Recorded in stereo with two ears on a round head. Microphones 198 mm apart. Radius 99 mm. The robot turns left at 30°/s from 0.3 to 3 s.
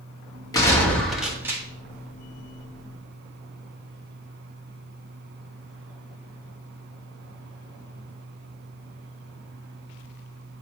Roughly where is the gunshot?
Ahead.